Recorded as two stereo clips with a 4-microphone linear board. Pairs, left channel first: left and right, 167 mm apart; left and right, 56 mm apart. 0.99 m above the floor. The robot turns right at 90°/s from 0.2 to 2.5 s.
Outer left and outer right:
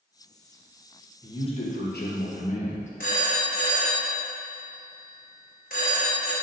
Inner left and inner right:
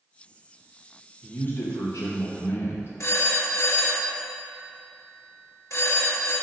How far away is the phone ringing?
About 0.7 m.